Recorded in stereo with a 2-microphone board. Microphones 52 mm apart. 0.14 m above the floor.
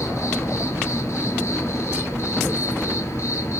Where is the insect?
55° left (ahead or behind), 1.4 m.